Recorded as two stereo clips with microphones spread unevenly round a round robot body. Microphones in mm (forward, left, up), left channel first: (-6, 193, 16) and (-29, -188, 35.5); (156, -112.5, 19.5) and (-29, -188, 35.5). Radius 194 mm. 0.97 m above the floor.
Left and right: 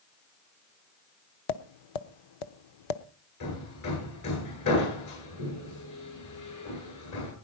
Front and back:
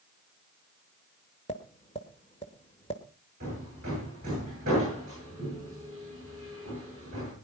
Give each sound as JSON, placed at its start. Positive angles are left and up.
{"t": 1.5, "sound": "tapping", "azimuth_deg": 95, "distance_m": 1.0}
{"t": 3.4, "sound": "hammering", "azimuth_deg": 130, "distance_m": 10.0}